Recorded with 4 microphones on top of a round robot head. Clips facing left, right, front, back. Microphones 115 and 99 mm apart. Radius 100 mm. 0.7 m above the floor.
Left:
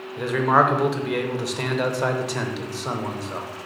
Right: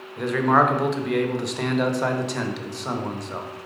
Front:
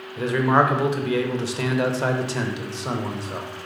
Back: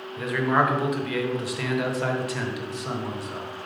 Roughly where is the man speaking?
Ahead.